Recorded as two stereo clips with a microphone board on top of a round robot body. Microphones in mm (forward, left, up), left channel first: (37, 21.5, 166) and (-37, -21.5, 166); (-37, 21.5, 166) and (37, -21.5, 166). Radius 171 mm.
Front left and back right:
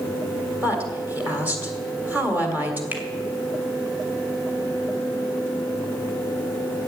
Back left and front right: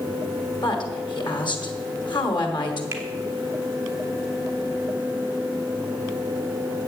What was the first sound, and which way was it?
A woman speaking, 140° left.